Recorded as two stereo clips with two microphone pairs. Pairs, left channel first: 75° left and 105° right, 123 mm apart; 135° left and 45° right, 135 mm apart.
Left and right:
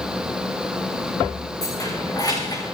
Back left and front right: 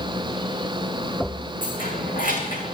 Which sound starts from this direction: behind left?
Keys jangling, at 1.6 s.